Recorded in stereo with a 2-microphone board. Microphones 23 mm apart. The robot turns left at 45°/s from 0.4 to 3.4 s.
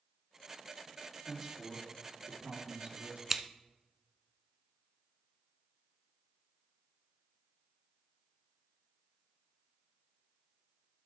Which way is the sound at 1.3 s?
5° left.